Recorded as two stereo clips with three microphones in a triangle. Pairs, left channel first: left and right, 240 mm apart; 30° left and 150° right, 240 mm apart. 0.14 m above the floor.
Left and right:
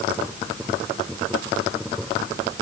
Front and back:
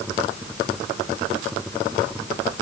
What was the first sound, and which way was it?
Only background noise.